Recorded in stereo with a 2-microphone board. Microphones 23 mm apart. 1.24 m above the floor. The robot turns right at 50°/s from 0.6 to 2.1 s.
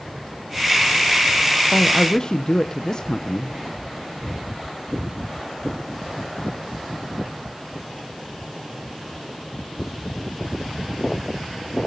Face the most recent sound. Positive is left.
turn(degrees=35)  # may be behind; listen again after turning